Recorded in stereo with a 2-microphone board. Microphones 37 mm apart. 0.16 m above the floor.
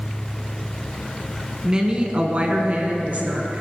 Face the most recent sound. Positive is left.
turn(degrees=-55)  # may be behind; listen again after turning